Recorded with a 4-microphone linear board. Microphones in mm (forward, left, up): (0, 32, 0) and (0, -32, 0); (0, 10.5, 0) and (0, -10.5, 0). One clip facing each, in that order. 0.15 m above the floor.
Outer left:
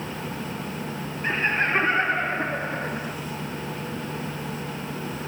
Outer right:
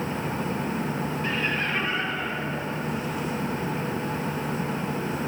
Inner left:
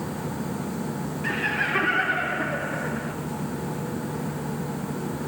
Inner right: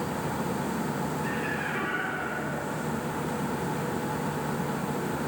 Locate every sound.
1.2 s laughter: 30° left (ahead or behind), 3.5 m; by 3.1 s 55° left (ahead or behind), 3 m